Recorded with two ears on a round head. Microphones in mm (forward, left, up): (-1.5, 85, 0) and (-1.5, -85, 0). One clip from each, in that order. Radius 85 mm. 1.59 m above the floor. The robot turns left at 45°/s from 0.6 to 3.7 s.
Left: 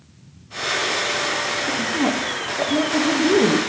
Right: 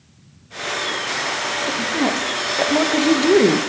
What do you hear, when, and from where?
1.7 s a woman speaking: 5° left, 0.8 m; by 3.6 s 85° right, 0.8 m